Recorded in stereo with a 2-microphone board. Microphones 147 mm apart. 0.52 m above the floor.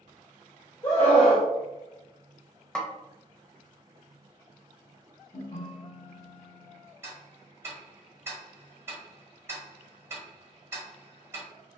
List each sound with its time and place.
0.8 s a scream: 30° left (ahead or behind), 1.5 m
2.8 s a snare drum: 5° left (ahead or behind), 0.5 m
5.3 s a ringtone: 40° left (ahead or behind), 1.4 m
7.0 s ticking: 20° right (ahead or behind), 1.1 m